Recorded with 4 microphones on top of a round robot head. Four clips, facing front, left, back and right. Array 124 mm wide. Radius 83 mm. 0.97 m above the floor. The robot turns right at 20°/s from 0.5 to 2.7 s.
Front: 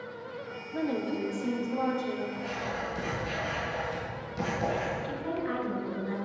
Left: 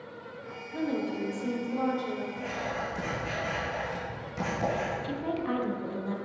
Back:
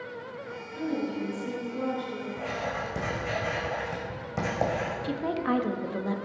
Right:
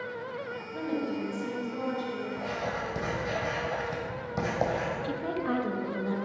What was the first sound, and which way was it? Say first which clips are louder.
A woman speaking: left 1 dB, even; 15° left.